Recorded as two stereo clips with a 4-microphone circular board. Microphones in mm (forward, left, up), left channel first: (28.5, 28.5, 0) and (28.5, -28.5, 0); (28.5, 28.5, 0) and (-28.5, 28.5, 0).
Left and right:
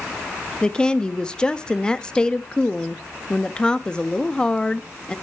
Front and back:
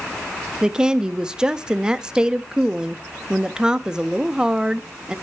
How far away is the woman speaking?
About 0.5 m.